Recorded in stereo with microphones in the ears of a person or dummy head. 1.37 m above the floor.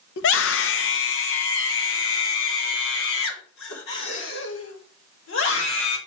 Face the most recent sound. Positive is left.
turn(degrees=85)